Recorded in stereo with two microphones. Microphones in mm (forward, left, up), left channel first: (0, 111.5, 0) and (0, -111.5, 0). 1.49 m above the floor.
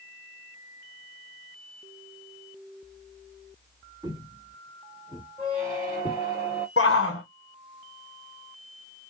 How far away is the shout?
About 0.8 m.